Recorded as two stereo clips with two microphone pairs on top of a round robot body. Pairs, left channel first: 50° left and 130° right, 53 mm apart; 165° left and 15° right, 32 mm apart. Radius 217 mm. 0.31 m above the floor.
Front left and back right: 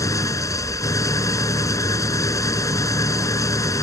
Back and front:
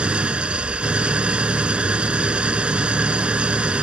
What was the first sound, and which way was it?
An engine running, 40° left.